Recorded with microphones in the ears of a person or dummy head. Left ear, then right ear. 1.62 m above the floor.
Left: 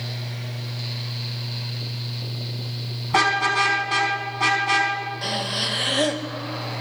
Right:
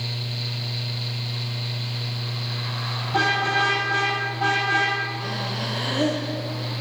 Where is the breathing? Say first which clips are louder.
Left 4 dB; 75° left (ahead or behind), 1.6 m.